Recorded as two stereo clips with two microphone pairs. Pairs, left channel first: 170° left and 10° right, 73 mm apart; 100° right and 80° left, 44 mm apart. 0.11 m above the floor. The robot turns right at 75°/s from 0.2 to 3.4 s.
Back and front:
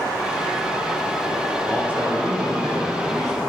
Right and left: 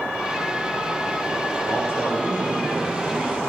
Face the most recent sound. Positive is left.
turn(degrees=30)